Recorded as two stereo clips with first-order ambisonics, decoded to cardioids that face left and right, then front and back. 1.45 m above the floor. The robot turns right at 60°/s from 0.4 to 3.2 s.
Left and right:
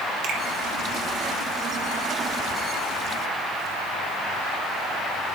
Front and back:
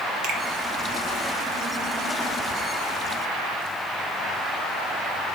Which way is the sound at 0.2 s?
135° right.